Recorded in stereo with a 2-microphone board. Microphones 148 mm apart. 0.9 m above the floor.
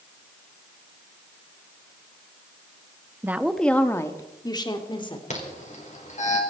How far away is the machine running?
No machine running in this recording.